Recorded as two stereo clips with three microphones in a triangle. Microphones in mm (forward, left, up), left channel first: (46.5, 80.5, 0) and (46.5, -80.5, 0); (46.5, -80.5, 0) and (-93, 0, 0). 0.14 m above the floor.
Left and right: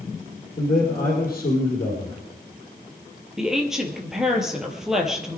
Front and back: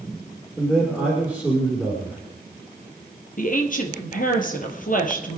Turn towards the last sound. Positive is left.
turn(degrees=-5)